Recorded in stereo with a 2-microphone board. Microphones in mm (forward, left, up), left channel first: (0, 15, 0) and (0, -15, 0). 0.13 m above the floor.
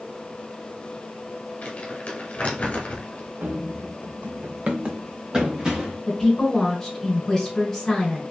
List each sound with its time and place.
1.6 s crumpling: 45° left (ahead or behind), 1.1 m
3.4 s running footsteps: 85° right, 1.1 m; by 6.0 s 15° right (ahead or behind), 1.9 m
6.1 s a woman speaking: 15° left (ahead or behind), 1.6 m